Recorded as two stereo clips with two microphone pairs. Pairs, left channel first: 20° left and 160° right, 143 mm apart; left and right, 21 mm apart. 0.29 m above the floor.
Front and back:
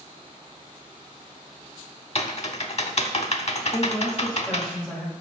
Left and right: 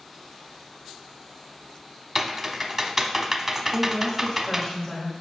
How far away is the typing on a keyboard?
About 0.6 m.